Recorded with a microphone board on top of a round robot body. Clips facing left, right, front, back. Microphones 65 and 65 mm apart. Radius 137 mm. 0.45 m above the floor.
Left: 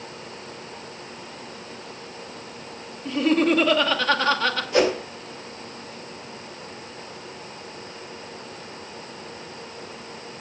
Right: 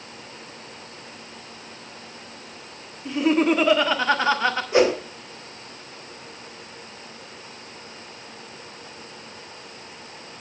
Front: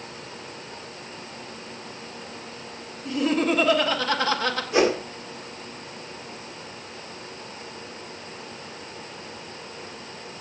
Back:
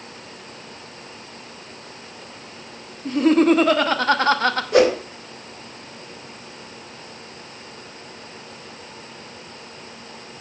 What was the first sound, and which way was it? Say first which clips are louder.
Laughter: even, back 7 dB; 155° right.